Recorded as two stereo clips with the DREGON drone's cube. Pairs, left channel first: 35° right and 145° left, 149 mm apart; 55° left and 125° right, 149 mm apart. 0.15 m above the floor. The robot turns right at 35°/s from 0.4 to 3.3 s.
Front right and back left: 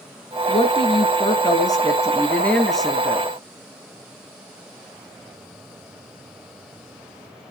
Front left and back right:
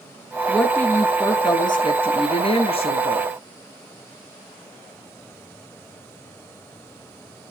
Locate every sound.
0.5 s a woman speaking: 25° right, 1.7 m; by 3.3 s 75° left, 1.7 m